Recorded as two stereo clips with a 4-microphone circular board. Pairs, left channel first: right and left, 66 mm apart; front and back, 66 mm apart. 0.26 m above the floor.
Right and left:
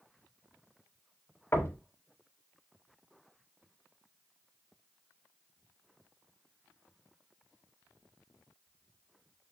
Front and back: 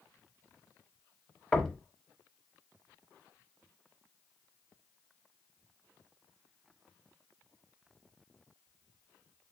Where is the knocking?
75° right, 0.8 m.